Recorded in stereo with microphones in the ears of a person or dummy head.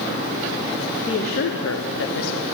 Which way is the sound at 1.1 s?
30° left (ahead or behind).